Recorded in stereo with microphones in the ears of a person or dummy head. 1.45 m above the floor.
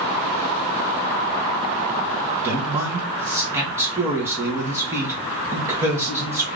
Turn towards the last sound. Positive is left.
turn(degrees=-15)  # may be behind; listen again after turning